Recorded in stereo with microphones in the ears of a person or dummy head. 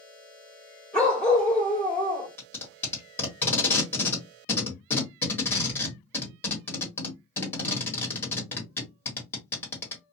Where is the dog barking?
5° left (ahead or behind), 1.5 m.